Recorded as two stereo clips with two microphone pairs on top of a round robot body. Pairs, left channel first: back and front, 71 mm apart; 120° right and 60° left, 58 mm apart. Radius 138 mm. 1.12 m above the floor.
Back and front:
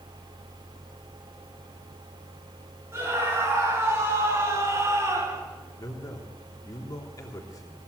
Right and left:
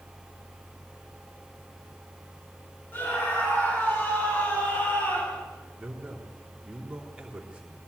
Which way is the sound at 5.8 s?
140° left.